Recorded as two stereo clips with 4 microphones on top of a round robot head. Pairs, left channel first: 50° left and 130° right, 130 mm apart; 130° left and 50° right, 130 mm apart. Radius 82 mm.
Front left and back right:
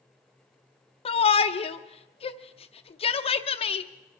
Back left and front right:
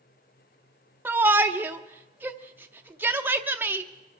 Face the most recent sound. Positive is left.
turn(degrees=25)